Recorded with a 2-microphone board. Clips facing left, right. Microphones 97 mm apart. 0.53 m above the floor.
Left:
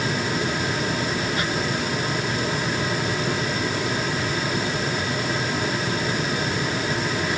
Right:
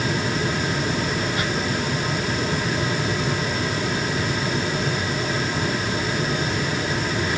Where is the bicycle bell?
No bicycle bell in this recording.